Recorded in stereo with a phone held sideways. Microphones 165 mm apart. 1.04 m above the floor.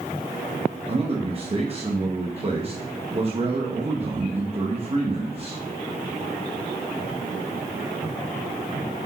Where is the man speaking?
35° right (ahead or behind), 1.0 m.